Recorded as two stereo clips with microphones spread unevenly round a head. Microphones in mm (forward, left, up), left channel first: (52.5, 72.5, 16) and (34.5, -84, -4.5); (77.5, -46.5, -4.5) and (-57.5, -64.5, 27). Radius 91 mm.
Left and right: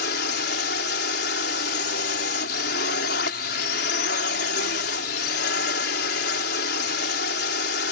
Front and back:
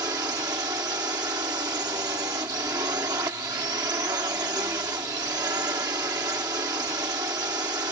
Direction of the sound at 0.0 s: 115° left.